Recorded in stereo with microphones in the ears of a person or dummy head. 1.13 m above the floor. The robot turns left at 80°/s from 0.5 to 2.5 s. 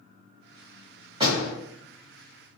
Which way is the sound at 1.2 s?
30° right (ahead or behind).